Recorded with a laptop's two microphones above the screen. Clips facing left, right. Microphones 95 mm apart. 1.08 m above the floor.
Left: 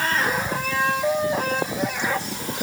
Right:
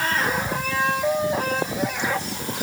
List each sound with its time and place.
Only background noise.